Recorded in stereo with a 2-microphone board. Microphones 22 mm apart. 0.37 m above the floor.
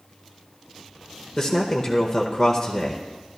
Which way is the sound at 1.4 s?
25° left (ahead or behind).